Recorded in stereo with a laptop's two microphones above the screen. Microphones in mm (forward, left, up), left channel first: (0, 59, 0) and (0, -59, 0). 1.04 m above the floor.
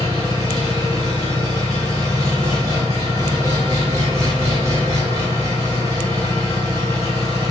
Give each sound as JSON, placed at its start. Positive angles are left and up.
{"t": 0.0, "sound": "an engine running", "side_deg": -30, "distance_m": 2.0}